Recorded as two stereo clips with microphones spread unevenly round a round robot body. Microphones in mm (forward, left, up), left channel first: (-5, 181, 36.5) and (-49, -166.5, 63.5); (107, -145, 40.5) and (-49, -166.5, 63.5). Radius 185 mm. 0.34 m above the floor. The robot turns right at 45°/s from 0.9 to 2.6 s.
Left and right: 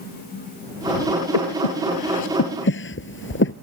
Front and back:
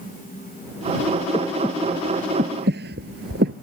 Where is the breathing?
85° left; by 3.5 s 140° left.